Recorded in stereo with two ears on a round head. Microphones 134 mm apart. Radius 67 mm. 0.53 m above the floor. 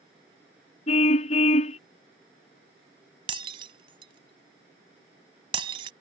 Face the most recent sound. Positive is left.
turn(degrees=-35)  # may be behind; listen again after turning